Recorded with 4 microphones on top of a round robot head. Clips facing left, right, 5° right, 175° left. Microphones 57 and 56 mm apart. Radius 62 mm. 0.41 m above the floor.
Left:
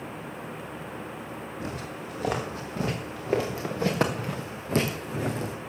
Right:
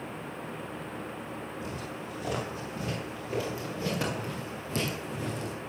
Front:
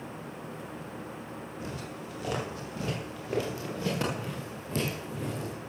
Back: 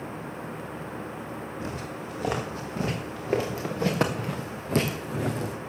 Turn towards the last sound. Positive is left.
turn(degrees=140)